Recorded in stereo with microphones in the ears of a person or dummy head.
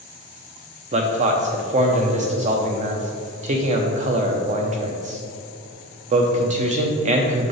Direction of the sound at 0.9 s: 40° right (ahead or behind).